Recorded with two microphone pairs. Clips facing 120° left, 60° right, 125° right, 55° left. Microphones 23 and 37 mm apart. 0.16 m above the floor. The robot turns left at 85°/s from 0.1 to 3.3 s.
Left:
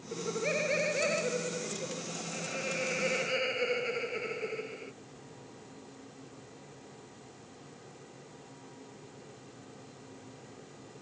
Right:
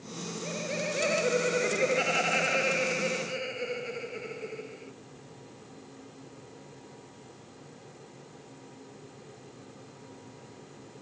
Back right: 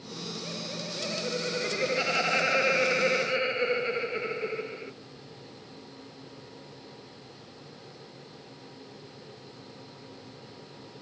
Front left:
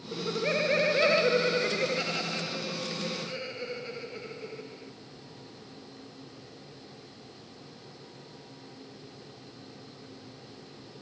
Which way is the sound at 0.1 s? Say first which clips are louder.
Left 4 dB, front left 9 dB; 105° left.